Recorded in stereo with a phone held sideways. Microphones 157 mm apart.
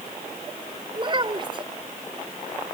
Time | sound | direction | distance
0.9 | a child speaking | 35° right (ahead or behind) | ?